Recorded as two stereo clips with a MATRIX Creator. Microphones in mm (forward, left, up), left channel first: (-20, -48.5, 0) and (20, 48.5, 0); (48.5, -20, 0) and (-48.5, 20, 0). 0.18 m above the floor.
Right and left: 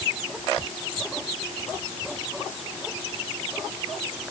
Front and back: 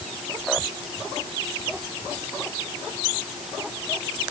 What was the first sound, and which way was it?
Only background noise.